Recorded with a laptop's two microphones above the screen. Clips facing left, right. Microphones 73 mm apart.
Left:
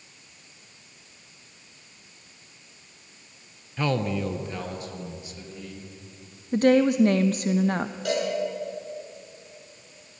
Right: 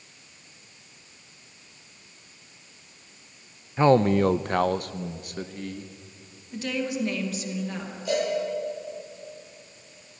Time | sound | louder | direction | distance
3.8 | a man speaking | right 8 dB | 25° right (ahead or behind) | 0.5 m
6.5 | a woman speaking | left 11 dB | 50° left (ahead or behind) | 0.6 m
8.1 | a cowbell | right 1 dB | 75° left (ahead or behind) | 8 m